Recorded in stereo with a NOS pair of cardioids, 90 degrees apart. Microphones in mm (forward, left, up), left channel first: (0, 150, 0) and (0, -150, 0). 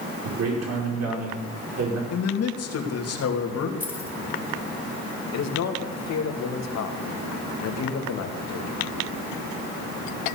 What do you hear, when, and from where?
0.2 s a man speaking: 60° right, 5.5 m
2.1 s a man speaking: 55° left, 3 m
3.8 s keys jangling: 5° left, 3.5 m
5.3 s a man speaking: 60° left, 2.5 m